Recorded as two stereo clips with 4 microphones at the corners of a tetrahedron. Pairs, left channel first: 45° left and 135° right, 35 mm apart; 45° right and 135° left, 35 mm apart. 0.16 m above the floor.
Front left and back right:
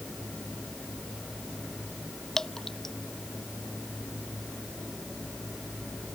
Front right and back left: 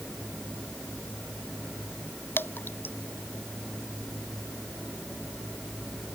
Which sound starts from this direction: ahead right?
Dripping, at 2.4 s.